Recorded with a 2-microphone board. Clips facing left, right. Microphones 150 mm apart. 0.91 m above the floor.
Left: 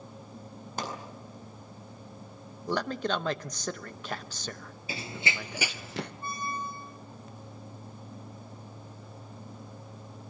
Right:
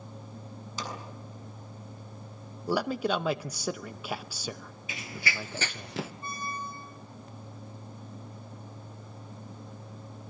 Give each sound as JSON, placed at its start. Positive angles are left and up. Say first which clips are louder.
{"t": 0.8, "sound": "a pop", "louder": "left 3 dB", "side_deg": 60, "distance_m": 6.5}
{"t": 2.7, "sound": "a man speaking", "louder": "right 2 dB", "side_deg": -10, "distance_m": 0.7}
{"t": 4.9, "sound": "running footsteps", "louder": "left 2 dB", "side_deg": 35, "distance_m": 1.0}
{"t": 6.2, "sound": "a squeak", "louder": "left 2 dB", "side_deg": 25, "distance_m": 2.5}